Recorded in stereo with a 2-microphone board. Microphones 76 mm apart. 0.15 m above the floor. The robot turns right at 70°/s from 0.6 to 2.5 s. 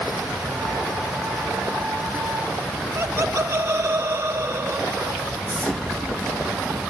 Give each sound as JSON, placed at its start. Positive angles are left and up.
{"t": 3.0, "sound": "laughter", "side_deg": -35, "distance_m": 1.4}
{"t": 5.5, "sound": "an explosion", "side_deg": 15, "distance_m": 3.0}